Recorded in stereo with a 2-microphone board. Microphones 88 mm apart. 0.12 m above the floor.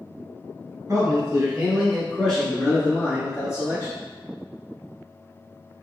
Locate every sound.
0.9 s a man speaking: 30° right (ahead or behind), 1.2 m; by 3.9 s 40° left (ahead or behind), 1.5 m